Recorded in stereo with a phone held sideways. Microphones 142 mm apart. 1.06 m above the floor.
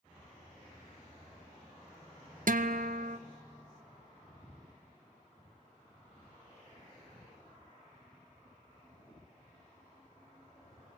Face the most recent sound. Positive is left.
turn(degrees=-70)  # may be behind; listen again after turning